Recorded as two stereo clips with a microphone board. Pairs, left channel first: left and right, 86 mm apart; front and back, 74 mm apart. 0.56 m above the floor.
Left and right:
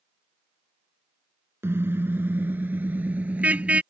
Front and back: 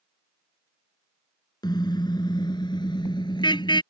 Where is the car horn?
25° right; by 3.8 s 15° right.